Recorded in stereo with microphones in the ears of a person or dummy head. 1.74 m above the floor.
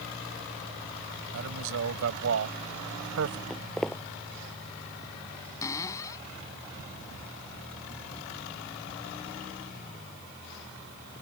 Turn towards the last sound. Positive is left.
turn(degrees=20)  # may be behind; listen again after turning